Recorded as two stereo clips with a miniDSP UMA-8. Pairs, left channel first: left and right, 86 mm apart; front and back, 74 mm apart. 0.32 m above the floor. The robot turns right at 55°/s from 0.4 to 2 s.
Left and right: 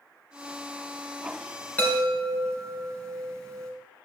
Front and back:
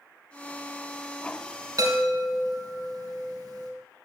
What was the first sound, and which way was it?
A chime, 160° left.